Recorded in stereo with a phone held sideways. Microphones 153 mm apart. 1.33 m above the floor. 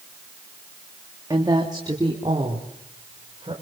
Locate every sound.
1.3 s a woman speaking: 25° right (ahead or behind), 2.5 m; by 3.6 s 35° right (ahead or behind), 5 m